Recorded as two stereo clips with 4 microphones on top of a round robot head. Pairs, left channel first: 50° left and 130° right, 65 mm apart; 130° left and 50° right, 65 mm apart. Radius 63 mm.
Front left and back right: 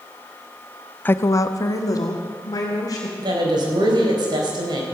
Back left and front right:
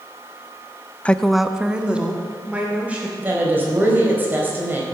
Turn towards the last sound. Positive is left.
turn(degrees=-115)